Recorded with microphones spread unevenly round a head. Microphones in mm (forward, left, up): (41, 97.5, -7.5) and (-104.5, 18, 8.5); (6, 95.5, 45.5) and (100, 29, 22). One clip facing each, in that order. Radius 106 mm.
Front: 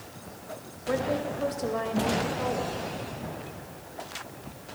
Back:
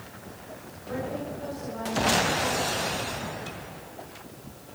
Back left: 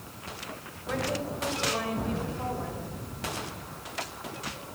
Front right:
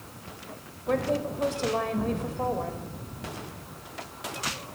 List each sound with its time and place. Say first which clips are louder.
0.9 s a woman speaking: front 5 dB, front right 5 dB; 5° left, 5.5 m